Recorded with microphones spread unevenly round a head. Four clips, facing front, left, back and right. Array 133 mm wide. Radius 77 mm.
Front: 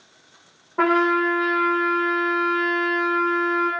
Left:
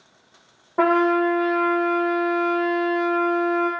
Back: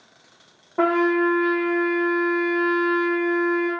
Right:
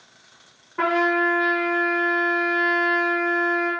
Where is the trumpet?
120° left, 0.5 m.